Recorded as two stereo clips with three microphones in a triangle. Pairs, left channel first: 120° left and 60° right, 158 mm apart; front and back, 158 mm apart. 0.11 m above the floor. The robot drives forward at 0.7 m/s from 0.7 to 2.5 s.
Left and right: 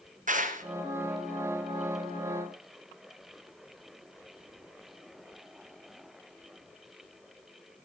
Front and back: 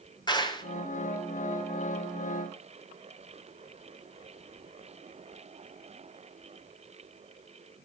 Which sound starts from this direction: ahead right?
A clap, at 0.3 s.